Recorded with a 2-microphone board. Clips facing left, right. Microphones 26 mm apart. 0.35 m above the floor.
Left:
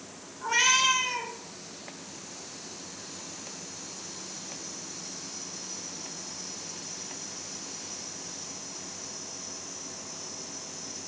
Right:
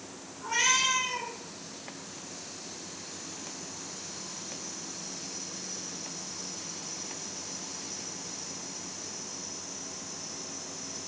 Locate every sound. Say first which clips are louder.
0.4 s a cat meowing: left 3 dB; 35° left (ahead or behind), 1.2 m